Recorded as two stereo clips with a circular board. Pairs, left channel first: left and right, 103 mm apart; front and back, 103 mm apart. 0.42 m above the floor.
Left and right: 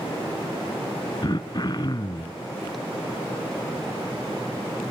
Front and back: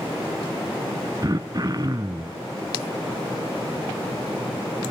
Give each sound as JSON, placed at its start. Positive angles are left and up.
{"t": 1.2, "sound": "throat clearing", "azimuth_deg": 130, "distance_m": 0.8}